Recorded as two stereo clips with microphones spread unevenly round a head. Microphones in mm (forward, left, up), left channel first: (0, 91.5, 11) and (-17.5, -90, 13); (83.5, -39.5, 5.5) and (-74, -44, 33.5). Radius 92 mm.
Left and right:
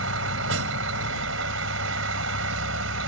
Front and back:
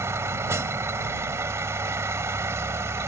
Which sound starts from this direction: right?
A vehicle, at 0.0 s.